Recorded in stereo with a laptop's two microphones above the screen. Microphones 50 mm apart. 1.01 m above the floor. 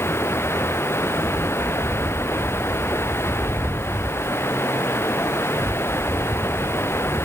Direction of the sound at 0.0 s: 55° left (ahead or behind).